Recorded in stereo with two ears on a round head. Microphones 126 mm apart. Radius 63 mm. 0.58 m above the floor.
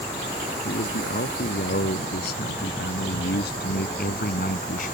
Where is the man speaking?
75° left (ahead or behind); by 4.9 s 60° left (ahead or behind).